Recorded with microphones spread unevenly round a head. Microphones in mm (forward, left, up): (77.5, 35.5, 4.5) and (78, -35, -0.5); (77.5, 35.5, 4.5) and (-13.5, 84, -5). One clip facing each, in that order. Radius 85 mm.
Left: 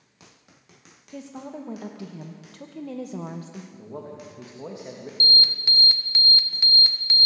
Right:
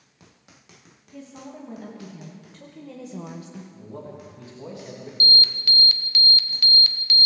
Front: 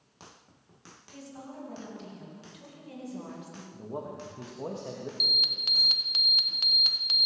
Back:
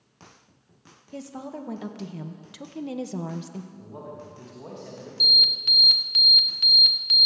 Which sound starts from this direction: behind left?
A woman speaking, at 1.1 s.